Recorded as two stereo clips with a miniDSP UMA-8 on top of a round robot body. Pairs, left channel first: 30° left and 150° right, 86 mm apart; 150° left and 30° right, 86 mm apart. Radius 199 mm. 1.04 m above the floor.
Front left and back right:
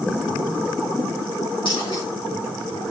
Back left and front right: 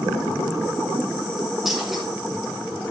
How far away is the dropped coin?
About 4.5 m.